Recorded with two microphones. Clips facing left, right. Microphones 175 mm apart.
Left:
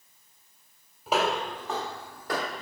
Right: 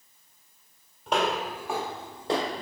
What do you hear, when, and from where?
1.1 s footsteps: 5° left (ahead or behind), 1.9 m; by 2.6 s 30° right (ahead or behind), 2 m